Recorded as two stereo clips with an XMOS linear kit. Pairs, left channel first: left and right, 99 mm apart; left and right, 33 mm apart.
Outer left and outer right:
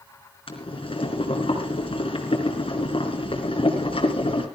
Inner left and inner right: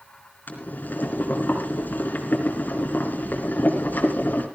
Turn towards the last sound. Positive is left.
turn(degrees=65)  # may be behind; listen again after turning